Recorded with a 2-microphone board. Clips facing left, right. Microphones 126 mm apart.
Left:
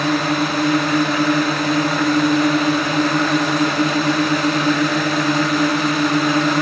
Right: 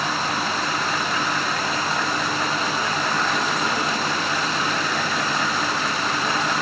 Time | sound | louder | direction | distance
0.0 | a drone | left 7 dB | 65° left (ahead or behind) | ?